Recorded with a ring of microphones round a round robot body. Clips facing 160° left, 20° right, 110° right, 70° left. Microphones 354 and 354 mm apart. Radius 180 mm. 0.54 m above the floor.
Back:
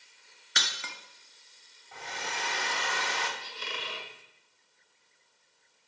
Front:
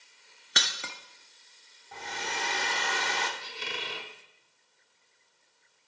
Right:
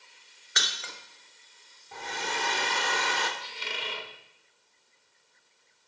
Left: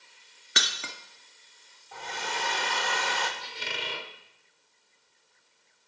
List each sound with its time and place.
0.6 s breaking glass: 20° left, 1.0 m
1.9 s a hair dryer: 60° right, 1.3 m
3.4 s a squeak: 30° left, 1.4 m